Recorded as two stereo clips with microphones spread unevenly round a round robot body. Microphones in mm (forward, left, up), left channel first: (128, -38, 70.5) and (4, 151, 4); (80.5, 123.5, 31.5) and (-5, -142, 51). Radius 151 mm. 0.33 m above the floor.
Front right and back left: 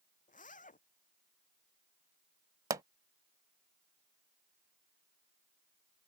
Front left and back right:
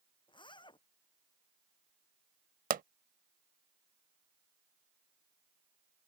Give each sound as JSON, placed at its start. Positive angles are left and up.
{"t": 0.3, "sound": "a zipper", "azimuth_deg": 0}
{"t": 2.7, "sound": "a pop", "azimuth_deg": -170}